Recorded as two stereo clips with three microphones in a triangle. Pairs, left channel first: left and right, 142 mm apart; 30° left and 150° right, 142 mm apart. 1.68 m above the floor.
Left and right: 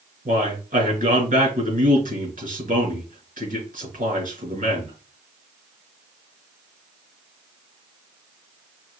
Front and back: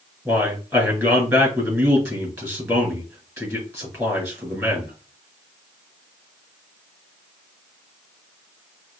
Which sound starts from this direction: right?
A man speaking, at 0.2 s.